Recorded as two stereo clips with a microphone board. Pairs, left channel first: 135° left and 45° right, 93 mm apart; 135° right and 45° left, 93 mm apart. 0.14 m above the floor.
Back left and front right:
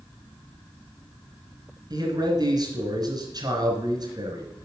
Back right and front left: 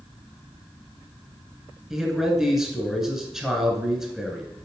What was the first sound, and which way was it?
A man speaking, 40° right.